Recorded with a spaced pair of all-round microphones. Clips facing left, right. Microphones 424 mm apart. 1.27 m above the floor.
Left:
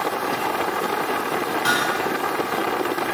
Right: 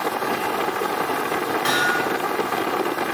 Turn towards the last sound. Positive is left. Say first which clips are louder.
# right 1 dB
turn(degrees=20)  # may be behind; listen again after turning